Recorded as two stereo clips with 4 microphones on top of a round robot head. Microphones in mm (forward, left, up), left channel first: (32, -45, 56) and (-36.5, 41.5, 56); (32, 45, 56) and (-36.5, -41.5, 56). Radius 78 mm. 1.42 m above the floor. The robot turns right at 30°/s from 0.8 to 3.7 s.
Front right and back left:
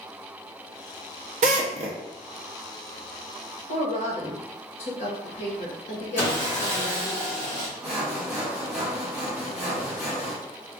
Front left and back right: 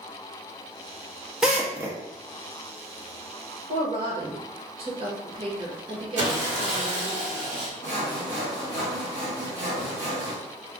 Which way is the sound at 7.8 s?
145° right.